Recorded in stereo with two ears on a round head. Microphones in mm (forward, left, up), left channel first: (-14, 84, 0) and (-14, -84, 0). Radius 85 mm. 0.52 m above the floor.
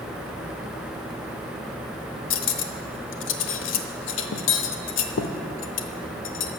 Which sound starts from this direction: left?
Cutlery clinking, at 2.3 s.